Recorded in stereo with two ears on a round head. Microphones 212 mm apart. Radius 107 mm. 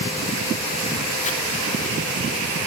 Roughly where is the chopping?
Left.